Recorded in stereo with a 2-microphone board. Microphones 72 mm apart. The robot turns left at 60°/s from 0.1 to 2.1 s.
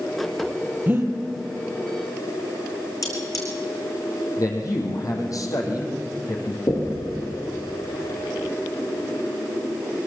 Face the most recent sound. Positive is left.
turn(degrees=55)  # may be behind; listen again after turning